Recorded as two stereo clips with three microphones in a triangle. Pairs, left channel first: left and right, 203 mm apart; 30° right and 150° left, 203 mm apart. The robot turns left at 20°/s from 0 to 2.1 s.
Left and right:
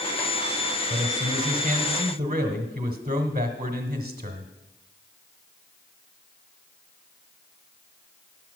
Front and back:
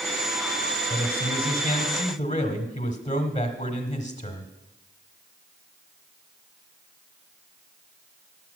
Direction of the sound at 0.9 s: 55° right.